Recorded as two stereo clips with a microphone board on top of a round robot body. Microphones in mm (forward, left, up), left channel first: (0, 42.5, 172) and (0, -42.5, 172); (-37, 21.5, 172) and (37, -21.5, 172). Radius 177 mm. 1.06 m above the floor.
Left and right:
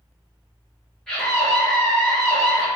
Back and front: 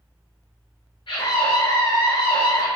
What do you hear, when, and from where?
1.1 s a scream: 175° left, 1.2 m